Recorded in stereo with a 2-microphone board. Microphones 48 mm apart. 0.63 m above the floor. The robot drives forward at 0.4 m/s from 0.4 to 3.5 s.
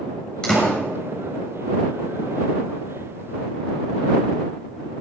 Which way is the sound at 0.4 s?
15° left (ahead or behind).